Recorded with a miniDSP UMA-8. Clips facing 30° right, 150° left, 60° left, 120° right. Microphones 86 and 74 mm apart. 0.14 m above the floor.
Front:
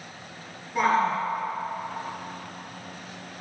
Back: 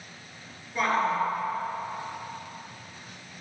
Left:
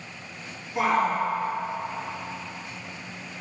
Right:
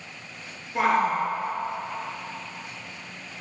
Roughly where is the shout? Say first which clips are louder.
Front 2 dB, right 1 dB; right.